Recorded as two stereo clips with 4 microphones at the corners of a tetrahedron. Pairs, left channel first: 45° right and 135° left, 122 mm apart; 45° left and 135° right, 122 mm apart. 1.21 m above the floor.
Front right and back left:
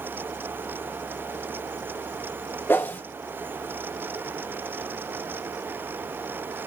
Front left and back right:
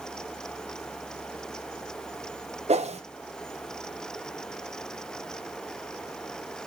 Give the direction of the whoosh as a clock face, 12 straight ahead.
4 o'clock.